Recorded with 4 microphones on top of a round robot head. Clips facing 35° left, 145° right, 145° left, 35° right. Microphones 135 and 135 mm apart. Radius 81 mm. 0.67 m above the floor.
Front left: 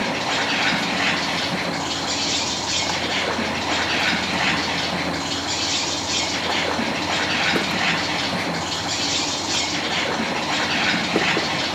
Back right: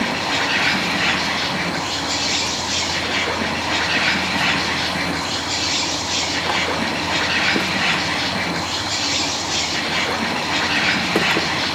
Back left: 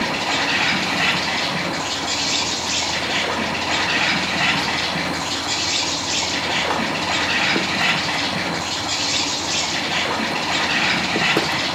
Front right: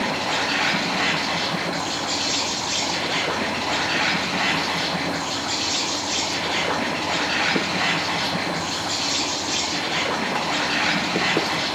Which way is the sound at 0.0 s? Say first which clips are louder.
Back right 1 dB, back left 1 dB; 70° left.